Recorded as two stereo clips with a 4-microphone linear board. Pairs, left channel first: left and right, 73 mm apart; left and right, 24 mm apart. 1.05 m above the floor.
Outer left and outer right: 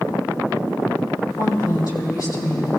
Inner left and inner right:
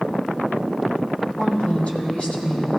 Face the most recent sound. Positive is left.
turn(degrees=45)  # may be behind; listen again after turning